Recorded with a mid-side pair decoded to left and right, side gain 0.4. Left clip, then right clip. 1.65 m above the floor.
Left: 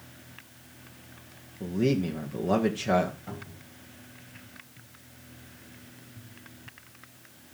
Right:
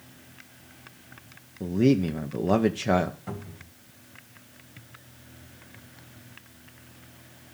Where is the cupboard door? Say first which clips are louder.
Right 2 dB; 35° right, 3 m.